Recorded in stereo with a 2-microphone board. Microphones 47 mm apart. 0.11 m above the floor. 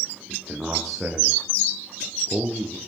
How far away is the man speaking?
About 5.5 m.